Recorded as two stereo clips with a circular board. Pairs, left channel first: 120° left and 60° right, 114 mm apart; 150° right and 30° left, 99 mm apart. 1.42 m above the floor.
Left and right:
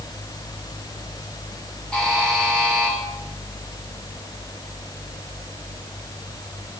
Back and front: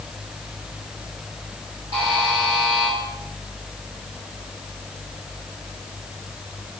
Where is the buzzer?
40° left, 3.5 m.